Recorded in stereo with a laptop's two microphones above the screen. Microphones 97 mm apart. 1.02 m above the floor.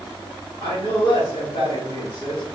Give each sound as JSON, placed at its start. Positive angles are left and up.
{"t": 0.6, "sound": "a man speaking", "side_deg": 60, "distance_m": 1.7}